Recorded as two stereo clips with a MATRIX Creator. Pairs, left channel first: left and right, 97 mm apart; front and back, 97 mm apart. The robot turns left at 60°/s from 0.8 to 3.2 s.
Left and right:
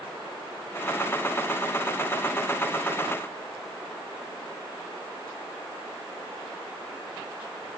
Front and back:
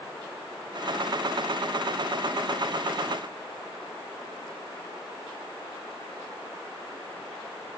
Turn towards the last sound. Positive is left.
No sound to turn to.